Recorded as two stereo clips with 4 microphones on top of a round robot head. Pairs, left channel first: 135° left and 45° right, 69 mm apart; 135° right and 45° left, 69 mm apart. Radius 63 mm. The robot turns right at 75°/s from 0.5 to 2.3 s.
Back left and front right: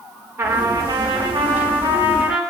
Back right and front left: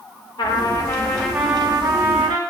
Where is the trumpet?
105° right, 1.4 m; by 2.4 s 30° left, 1.4 m.